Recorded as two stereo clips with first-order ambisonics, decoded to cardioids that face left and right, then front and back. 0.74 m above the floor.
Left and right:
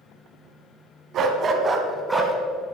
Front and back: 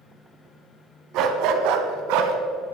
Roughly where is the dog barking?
Behind right.